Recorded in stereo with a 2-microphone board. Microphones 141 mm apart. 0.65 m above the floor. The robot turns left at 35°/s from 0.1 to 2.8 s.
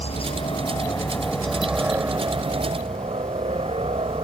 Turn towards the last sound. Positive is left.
turn(degrees=-45)